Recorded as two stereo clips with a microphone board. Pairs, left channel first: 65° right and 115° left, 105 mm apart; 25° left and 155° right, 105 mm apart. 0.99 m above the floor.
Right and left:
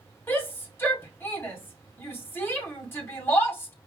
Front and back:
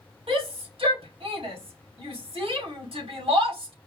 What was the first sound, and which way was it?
A shout, 135° right.